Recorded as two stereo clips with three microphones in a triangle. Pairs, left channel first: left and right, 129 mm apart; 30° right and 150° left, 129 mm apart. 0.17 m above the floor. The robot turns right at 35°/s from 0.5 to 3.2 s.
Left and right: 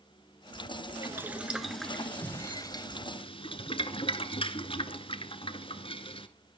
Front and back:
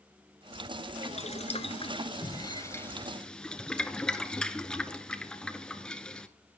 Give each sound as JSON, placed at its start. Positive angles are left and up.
{"t": 1.0, "sound": "boiling", "azimuth_deg": -25, "distance_m": 1.3}